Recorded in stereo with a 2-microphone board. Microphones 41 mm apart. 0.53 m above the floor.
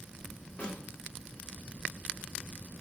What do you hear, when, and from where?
0.6 s a snare drum: 35° left (ahead or behind), 1.5 m